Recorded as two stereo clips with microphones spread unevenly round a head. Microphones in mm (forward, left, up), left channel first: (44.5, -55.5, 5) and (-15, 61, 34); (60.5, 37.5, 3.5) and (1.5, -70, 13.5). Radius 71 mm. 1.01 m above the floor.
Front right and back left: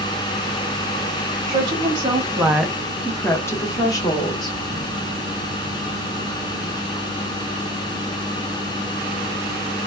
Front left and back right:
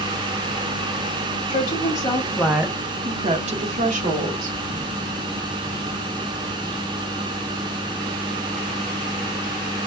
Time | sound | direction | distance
1.5 | a woman speaking | 65° left | 0.8 m